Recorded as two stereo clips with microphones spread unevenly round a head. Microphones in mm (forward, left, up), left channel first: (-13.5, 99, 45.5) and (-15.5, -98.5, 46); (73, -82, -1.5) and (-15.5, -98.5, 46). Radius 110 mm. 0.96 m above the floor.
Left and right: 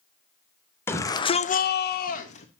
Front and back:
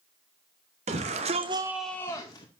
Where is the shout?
165° left, 1.2 m; by 2.5 s 35° left, 1.1 m.